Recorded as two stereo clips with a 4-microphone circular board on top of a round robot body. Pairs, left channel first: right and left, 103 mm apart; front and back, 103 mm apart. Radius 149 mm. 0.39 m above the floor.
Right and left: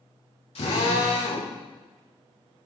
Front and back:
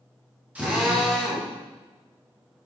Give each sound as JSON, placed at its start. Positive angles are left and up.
{"t": 0.6, "sound": "a drill", "azimuth_deg": -105, "distance_m": 6.0}